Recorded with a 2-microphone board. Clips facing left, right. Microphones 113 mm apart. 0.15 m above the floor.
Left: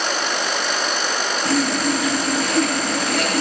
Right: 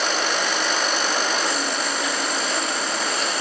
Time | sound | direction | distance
1.4 | sawing | 70° left (ahead or behind) | 1.3 m